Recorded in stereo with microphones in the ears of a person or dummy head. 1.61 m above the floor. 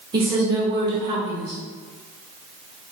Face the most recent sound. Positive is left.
turn(degrees=-25)  # may be behind; listen again after turning